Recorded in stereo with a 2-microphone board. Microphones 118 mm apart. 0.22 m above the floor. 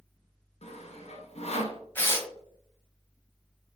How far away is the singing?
I don't hear singing.